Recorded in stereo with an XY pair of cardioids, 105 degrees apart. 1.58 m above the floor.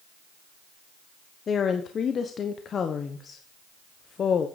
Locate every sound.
1.5 s a woman speaking: 50° left, 1.2 m